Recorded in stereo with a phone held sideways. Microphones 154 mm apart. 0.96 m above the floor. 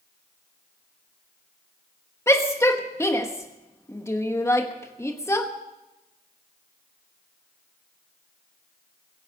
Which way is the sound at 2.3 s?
20° left (ahead or behind).